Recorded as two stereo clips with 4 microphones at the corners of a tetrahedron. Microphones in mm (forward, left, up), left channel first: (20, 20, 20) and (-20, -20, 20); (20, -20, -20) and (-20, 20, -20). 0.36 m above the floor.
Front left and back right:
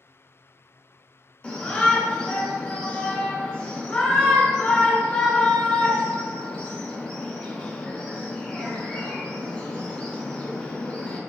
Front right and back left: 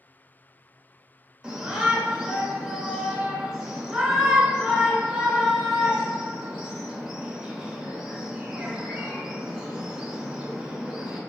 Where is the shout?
80° left, 0.8 m.